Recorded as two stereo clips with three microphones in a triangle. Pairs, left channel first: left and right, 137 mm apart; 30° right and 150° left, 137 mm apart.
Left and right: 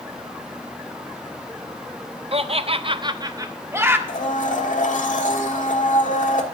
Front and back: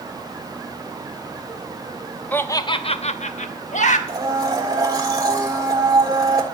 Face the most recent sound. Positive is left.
turn(degrees=90)